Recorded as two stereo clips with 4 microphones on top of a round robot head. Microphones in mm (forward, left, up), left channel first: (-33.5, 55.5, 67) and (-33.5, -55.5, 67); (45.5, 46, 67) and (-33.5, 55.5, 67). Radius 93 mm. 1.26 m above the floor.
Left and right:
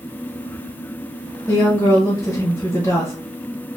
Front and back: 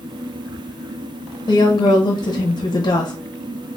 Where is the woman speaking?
15° left, 1.0 m.